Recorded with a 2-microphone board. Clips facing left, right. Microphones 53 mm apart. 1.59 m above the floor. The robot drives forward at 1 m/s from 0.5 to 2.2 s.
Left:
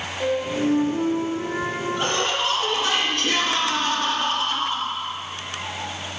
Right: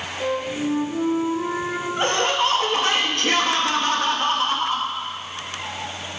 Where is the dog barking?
No dog barking in this recording.